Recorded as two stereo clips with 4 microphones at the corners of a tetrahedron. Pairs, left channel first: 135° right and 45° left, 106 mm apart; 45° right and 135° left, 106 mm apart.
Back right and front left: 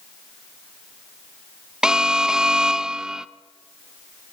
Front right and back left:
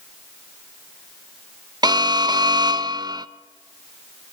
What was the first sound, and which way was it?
An alarm, 125° left.